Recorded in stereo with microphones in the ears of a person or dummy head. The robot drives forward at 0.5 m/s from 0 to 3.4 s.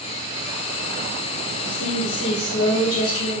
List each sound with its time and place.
1.6 s a woman speaking: 60° left (ahead or behind), 1.1 m; by 3.4 s 45° left (ahead or behind), 1.3 m